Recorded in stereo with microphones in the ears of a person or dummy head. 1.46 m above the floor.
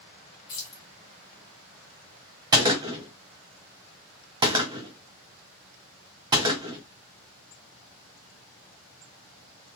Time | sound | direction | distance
0.5 | keys jangling | 25° left (ahead or behind) | 0.5 m
2.5 | a gunshot | 20° right (ahead or behind) | 0.7 m